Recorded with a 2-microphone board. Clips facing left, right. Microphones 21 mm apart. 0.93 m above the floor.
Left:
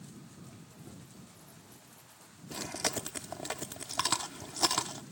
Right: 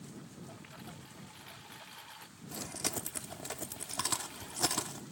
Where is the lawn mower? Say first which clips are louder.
Right 2 dB; 85° right; by 5.1 s 80° right.